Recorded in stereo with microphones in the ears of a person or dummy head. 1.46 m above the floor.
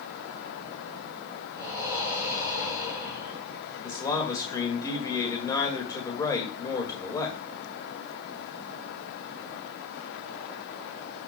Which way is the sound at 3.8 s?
20° left (ahead or behind).